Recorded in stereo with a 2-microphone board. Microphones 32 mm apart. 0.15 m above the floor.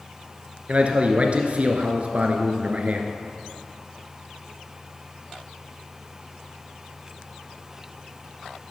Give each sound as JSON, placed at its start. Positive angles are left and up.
{"t": 0.7, "sound": "a man speaking", "side_deg": -45, "distance_m": 1.6}